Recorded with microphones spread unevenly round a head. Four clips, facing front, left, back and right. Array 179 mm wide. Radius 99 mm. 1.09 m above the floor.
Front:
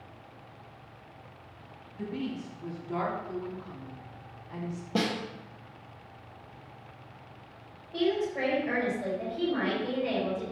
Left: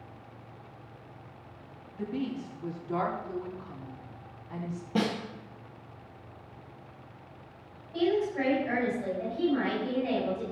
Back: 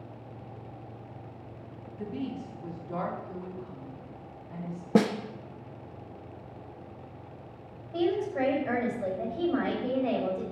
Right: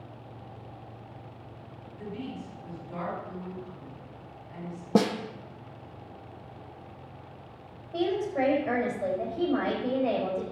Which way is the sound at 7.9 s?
105° right.